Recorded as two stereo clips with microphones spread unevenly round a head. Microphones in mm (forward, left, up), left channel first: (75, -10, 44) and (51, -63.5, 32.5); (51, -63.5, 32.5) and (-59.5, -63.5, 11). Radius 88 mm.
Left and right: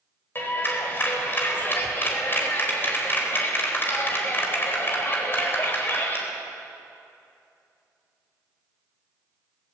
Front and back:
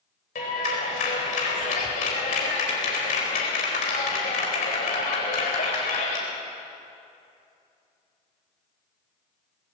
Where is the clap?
20° left, 4 m.